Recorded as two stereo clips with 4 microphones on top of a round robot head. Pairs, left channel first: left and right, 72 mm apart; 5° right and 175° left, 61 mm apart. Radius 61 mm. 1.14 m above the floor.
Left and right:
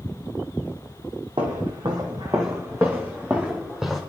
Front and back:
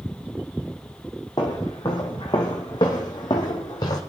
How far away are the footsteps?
About 2.5 m.